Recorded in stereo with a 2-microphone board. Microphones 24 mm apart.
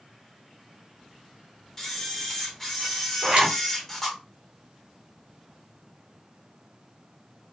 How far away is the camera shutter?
About 0.9 m.